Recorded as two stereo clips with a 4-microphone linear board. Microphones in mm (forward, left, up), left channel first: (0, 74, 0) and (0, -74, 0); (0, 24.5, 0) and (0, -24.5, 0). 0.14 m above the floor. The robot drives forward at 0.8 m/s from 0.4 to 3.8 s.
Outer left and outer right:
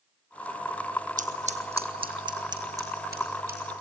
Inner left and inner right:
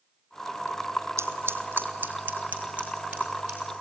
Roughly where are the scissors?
Right.